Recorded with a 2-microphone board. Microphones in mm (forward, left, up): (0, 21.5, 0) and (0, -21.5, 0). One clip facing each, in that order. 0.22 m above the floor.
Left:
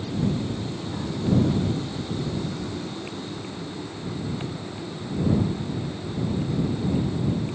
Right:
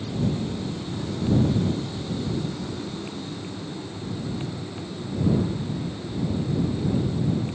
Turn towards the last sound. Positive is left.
No sound to turn to.